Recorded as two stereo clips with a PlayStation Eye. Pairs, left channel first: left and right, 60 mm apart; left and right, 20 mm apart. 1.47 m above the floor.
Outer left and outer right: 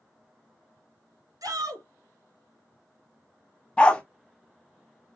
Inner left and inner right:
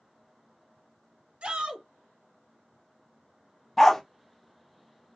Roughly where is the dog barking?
Centre.